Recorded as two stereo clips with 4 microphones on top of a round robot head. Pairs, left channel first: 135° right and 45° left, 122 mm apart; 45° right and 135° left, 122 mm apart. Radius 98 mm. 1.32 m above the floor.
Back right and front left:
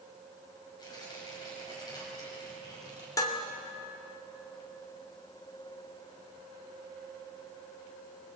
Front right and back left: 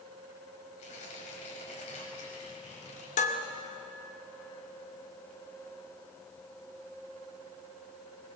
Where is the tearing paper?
75° right, 7 m.